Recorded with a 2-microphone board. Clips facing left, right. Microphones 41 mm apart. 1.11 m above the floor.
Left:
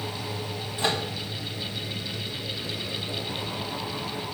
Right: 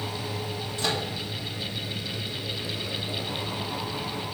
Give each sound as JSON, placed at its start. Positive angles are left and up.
{"t": 0.8, "sound": "a microwave", "side_deg": 20, "distance_m": 1.2}